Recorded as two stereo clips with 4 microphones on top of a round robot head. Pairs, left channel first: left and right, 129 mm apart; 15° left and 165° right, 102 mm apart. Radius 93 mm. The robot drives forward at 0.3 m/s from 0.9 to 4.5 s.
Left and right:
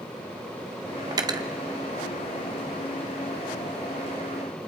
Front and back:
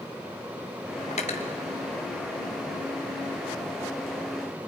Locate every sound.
1.1 s cutlery clinking: 30° right, 1.2 m; by 1.5 s 35° right, 1.1 m